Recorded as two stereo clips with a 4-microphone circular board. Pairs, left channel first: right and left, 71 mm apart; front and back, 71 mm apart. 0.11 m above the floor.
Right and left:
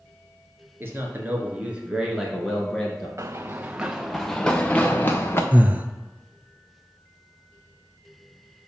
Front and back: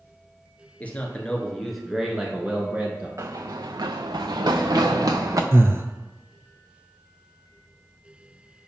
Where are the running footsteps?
135° left, 0.6 m; by 5.4 s 145° right, 1.1 m.